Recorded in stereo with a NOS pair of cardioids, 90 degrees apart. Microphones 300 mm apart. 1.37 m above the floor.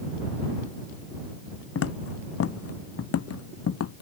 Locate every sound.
1.8 s footsteps: 50° left; by 4.0 s 55° left